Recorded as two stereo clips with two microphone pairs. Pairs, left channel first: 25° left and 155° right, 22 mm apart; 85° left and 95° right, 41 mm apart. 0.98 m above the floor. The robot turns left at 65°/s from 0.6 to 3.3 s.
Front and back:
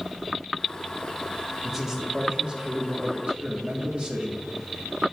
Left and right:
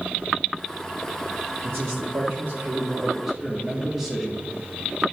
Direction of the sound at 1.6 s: 65° right.